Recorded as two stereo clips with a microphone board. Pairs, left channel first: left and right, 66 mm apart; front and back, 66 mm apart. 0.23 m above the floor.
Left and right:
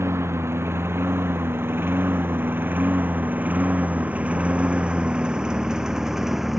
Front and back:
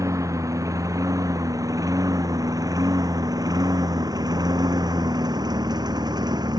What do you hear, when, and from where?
0.0 s a lawn mower: 140° right; by 6.6 s 175° right